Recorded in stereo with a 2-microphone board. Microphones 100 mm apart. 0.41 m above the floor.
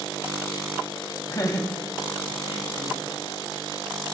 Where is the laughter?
35° left (ahead or behind), 2.5 m; by 3.0 s 70° left (ahead or behind), 3.5 m.